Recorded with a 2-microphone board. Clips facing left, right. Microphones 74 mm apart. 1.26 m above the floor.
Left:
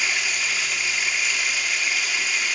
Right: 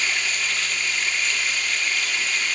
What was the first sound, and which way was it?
Running water, 5° left (ahead or behind).